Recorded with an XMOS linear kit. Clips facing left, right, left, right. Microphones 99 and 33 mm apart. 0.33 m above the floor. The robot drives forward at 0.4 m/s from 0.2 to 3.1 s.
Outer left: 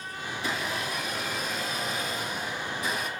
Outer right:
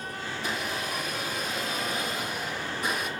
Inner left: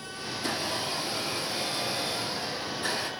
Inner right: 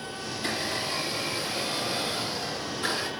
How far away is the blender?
About 3.5 m.